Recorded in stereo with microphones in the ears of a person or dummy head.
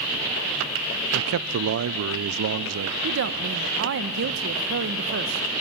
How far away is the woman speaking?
About 1.2 m.